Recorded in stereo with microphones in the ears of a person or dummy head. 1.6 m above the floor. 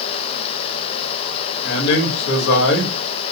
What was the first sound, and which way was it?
A man speaking, 85° left.